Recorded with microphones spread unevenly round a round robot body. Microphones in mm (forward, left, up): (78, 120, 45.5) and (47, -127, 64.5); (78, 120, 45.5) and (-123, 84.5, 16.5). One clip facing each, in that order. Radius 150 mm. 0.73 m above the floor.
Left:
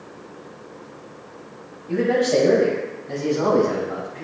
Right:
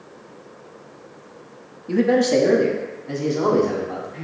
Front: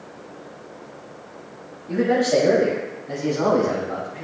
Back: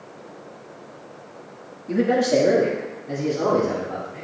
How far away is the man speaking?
About 1.2 m.